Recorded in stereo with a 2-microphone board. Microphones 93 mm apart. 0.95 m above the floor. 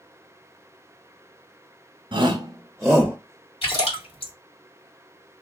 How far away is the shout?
About 0.9 m.